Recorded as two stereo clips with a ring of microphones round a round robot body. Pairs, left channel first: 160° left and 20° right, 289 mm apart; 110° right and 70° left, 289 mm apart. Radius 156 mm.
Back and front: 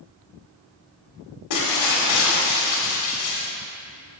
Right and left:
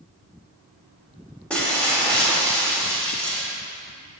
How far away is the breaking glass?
About 1.6 m.